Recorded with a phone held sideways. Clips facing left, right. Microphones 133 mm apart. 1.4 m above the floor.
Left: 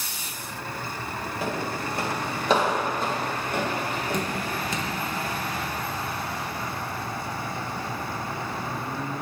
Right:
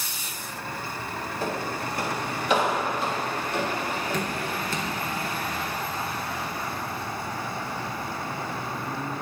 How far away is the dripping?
About 1.0 m.